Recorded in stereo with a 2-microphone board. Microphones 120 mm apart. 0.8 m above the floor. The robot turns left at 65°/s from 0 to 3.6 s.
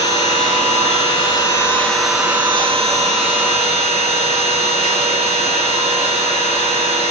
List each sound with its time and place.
0.0 s an engine running: 130° left, 8.5 m; by 7.1 s 105° right, 8.5 m